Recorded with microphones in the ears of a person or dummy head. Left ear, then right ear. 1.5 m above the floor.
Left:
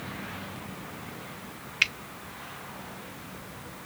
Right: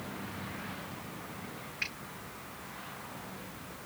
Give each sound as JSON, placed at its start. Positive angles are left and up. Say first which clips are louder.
{"t": 1.8, "sound": "a finger snap", "louder": "left 12 dB", "side_deg": 70, "distance_m": 0.5}